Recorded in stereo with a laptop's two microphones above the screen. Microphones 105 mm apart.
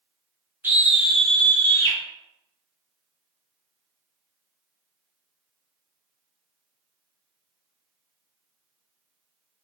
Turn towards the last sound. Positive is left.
turn(degrees=25)  # may be behind; listen again after turning